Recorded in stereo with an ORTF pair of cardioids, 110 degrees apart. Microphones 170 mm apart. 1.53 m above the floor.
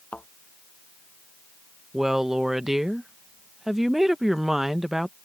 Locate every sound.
0.1 s a thud: 5° left
1.9 s a woman speaking: straight ahead